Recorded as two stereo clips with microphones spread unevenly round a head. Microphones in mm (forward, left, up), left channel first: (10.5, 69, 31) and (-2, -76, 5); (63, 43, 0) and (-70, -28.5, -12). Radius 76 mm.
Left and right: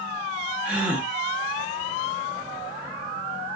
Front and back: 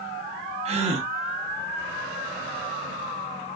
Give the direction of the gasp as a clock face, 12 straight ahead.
5 o'clock.